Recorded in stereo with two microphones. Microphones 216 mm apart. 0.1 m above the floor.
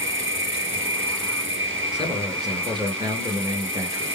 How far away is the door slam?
I don't hear a door slam.